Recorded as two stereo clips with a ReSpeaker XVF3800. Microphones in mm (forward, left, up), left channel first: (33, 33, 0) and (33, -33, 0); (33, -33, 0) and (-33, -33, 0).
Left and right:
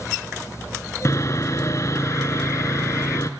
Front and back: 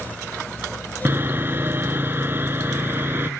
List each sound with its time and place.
1.1 s sawing: 130° left, 0.6 m